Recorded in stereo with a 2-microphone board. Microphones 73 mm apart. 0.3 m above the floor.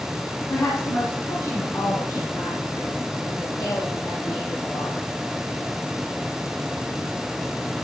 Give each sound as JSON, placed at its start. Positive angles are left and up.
{"t": 0.5, "sound": "a woman speaking", "side_deg": 50, "distance_m": 2.5}